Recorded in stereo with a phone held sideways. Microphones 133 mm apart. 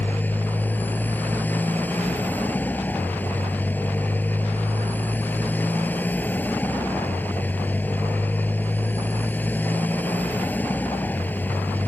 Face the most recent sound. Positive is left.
turn(degrees=15)  # may be behind; listen again after turning